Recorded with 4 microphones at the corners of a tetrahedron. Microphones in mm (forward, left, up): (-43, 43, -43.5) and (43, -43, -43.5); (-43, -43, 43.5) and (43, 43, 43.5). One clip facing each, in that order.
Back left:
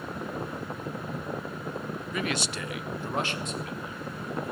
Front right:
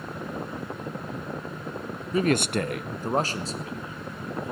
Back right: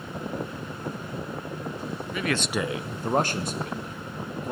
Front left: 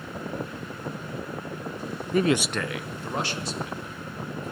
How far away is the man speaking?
About 0.5 m.